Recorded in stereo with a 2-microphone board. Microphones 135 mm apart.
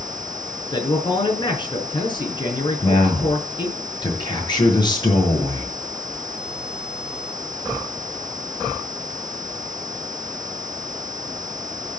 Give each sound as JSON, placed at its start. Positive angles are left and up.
{"t": 0.7, "sound": "a man speaking", "side_deg": 35, "distance_m": 4.0}
{"t": 2.8, "sound": "a man speaking", "side_deg": 30, "distance_m": 6.5}